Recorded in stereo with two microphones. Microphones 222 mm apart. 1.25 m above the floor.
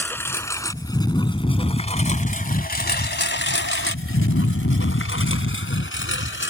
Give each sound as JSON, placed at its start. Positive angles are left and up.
{"t": 0.0, "sound": "a lawn mower", "side_deg": 10}